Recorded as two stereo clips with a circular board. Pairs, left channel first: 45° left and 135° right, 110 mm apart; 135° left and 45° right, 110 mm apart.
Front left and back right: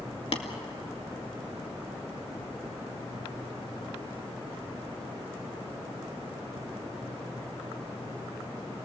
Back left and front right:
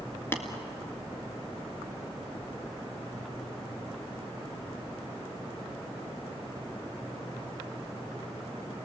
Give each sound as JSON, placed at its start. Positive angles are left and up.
{"t": 0.3, "sound": "tapping", "azimuth_deg": 65, "distance_m": 2.0}